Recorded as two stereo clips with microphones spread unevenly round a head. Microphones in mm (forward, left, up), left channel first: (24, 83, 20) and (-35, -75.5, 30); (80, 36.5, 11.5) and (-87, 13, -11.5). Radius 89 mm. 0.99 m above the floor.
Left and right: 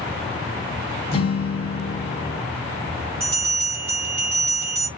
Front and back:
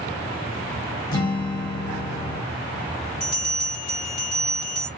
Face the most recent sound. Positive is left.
turn(degrees=-55)